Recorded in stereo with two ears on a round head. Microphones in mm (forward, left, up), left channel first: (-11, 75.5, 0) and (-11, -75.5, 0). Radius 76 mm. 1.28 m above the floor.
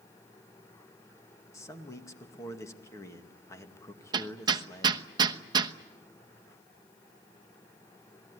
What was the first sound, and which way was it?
A man speaking, 20° left (ahead or behind).